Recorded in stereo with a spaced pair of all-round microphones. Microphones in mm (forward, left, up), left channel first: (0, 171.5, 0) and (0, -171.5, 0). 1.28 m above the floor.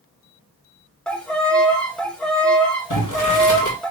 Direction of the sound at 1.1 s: 5° left (ahead or behind).